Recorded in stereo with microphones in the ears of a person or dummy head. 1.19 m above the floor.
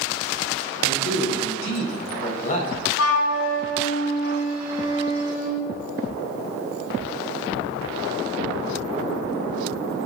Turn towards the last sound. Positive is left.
turn(degrees=60)  # may be behind; listen again after turning